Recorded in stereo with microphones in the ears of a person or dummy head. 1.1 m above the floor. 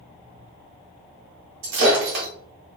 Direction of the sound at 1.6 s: 55° right (ahead or behind).